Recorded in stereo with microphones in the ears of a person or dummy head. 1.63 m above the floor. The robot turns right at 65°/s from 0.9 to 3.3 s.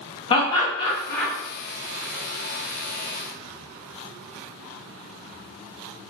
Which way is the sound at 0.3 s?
25° left (ahead or behind).